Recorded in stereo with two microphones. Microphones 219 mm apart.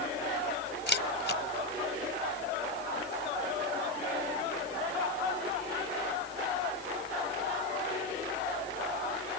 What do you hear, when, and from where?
0.9 s a camera shutter: 50° left (ahead or behind)